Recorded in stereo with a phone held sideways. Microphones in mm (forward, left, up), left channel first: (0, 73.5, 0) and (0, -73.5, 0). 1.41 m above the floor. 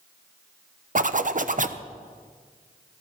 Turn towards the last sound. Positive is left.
turn(degrees=-60)  # may be behind; listen again after turning